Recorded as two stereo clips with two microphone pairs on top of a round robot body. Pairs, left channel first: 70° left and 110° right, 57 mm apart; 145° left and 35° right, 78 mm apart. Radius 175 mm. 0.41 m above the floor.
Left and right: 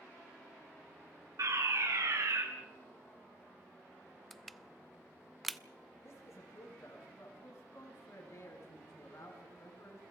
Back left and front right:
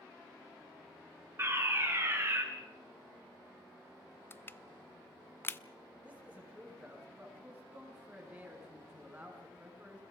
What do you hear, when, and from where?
1.4 s a fire alarm: 90° right, 5.5 m
4.3 s crushing: 160° left, 1.1 m
6.0 s a man speaking: 35° left, 6 m